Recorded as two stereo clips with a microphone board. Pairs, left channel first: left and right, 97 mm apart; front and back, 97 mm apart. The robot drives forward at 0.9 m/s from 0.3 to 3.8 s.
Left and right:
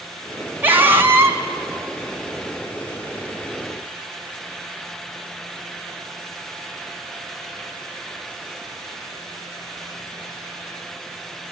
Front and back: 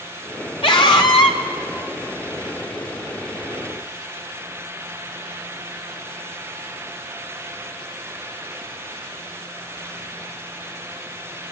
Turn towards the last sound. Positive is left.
turn(degrees=-120)